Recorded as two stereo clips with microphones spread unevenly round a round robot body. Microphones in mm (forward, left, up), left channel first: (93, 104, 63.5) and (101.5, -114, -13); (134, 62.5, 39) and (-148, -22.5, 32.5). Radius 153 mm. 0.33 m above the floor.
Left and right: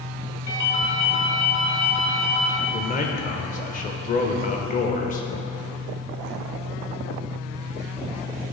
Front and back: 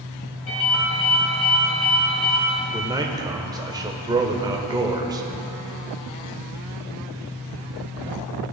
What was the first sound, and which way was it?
A ringtone, 55° left.